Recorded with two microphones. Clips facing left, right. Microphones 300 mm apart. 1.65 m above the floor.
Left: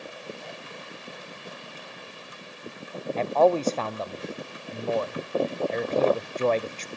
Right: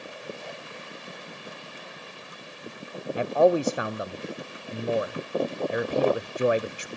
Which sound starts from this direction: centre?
A man speaking, at 3.2 s.